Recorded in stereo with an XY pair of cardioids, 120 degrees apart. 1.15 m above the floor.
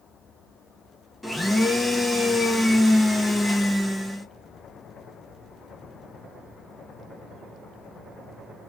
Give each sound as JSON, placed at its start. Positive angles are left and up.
{"t": 1.2, "sound": "a blender", "azimuth_deg": 5, "distance_m": 0.9}